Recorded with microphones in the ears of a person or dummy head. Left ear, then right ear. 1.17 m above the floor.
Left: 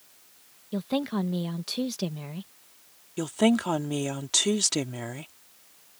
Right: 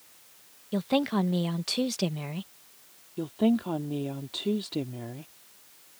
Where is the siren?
No siren in this recording.